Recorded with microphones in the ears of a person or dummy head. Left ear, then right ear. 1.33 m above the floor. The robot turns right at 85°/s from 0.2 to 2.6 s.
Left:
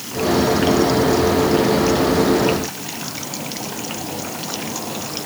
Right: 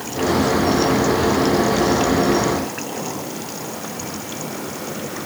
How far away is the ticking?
I don't hear ticking.